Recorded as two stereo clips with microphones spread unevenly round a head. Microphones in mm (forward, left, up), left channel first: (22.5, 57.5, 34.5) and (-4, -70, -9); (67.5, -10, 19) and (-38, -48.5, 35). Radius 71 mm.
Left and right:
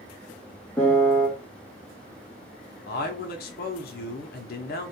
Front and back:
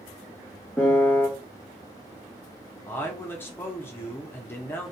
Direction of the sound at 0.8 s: 110° left.